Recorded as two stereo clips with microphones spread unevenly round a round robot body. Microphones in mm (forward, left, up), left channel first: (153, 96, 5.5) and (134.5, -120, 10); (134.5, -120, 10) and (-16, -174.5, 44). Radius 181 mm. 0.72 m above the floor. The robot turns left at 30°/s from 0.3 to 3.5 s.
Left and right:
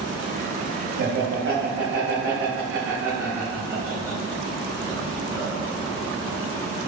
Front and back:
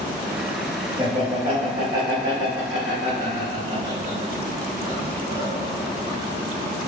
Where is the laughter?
95° right, 1.1 m; by 5.9 s 175° right, 1.1 m.